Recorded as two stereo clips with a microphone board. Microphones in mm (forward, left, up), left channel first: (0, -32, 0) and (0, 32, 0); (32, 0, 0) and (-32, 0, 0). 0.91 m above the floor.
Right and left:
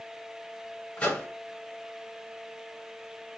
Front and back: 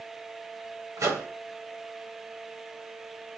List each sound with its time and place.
1.0 s a microwave: 160° right, 1.5 m